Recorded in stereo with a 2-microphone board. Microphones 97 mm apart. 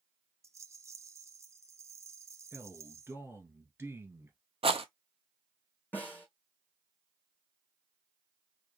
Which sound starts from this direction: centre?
A snare drum, at 5.9 s.